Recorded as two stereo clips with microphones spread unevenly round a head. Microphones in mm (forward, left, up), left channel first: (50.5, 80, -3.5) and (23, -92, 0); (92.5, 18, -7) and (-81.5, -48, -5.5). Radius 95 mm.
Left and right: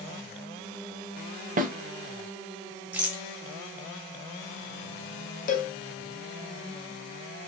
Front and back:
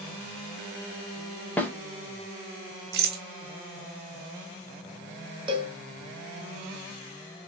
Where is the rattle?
Straight behind, 1.0 m.